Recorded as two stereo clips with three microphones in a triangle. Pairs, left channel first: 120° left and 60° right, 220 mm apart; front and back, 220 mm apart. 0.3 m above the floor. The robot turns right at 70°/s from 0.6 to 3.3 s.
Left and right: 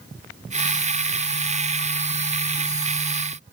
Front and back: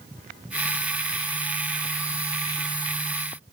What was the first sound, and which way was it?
Only background noise.